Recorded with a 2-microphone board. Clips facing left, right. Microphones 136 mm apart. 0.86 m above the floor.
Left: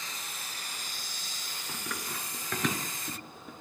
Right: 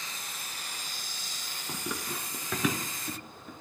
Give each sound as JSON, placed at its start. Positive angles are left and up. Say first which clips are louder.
{"t": 1.7, "sound": "running footsteps", "louder": "right 3 dB", "side_deg": -20, "distance_m": 0.8}